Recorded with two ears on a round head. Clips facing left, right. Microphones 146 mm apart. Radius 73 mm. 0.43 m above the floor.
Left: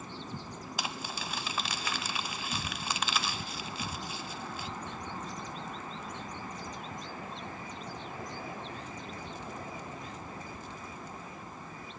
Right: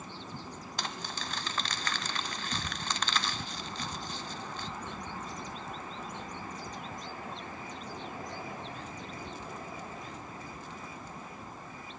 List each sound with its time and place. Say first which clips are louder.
0.8 s crumpling: left 1 dB; 5° left (ahead or behind), 0.5 m